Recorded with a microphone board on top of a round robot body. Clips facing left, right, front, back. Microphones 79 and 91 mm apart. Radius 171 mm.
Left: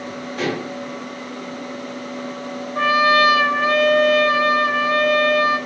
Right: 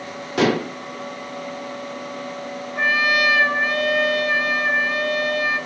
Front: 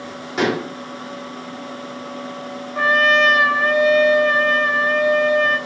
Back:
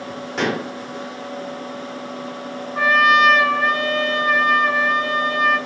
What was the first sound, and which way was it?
Dishes clattering, 85° right.